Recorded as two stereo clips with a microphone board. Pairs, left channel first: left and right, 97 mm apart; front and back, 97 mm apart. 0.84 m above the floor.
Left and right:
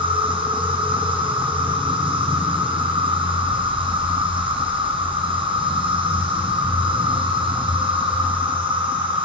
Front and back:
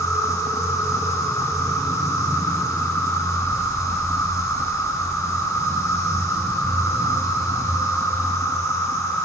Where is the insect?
60° right, 4.5 m.